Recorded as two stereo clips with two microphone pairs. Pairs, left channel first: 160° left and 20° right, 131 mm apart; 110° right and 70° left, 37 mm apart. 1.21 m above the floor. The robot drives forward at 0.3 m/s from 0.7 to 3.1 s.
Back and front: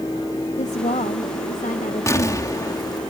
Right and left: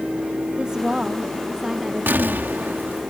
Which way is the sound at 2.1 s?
90° left.